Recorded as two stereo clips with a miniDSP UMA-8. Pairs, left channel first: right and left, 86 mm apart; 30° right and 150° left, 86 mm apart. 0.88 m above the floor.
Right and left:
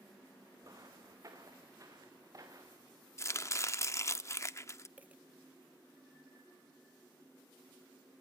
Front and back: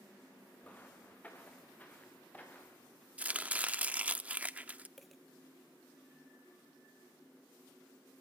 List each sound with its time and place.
0.6 s footsteps: 40° left, 4.5 m
3.2 s chopping: 140° right, 0.6 m
5.0 s a dropped coin: 65° left, 0.9 m